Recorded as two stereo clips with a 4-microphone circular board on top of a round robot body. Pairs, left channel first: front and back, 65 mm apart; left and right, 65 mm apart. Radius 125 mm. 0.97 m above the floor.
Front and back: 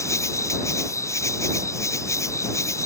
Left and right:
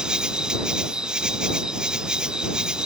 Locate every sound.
0.0 s an insect: 15° right